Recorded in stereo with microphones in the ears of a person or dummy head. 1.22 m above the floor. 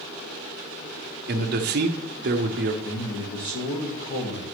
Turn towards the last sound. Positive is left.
turn(degrees=45)  # may be behind; listen again after turning